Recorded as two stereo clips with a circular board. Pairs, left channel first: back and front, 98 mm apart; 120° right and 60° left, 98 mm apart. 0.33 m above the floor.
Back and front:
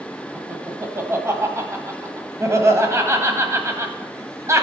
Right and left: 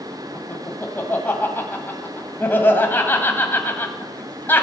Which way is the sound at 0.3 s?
55° right.